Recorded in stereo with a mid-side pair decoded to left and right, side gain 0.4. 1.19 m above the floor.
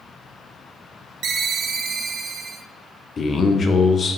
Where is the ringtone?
60° right, 0.6 m.